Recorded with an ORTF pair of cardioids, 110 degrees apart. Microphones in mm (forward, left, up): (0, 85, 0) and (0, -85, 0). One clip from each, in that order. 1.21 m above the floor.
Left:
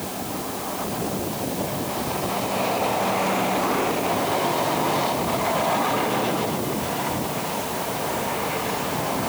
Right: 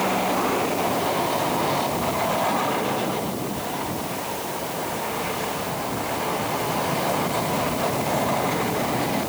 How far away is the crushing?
I don't hear crushing.